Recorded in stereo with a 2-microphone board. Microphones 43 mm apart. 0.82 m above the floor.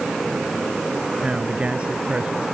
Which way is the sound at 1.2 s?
25° right (ahead or behind).